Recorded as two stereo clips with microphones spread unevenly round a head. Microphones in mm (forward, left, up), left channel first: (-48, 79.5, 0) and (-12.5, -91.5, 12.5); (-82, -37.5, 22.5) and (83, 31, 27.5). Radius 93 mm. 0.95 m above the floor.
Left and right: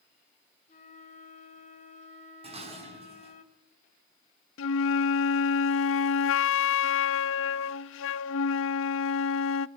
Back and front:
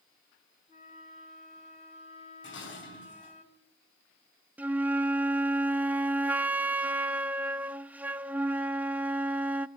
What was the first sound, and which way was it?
A flute, 145° left.